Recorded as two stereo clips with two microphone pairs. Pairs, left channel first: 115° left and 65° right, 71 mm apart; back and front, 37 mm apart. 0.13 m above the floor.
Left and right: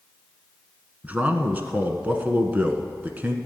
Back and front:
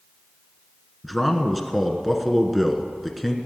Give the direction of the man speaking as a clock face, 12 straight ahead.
3 o'clock.